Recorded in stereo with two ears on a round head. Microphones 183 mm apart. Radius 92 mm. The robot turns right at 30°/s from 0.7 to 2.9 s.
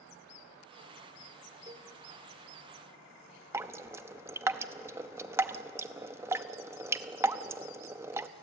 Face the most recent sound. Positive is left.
turn(degrees=-15)  # may be behind; listen again after turning